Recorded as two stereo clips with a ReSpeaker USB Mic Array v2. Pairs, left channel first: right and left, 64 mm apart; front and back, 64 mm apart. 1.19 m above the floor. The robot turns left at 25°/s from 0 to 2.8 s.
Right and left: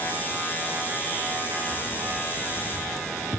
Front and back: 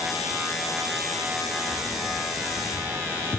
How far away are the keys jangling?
About 7 m.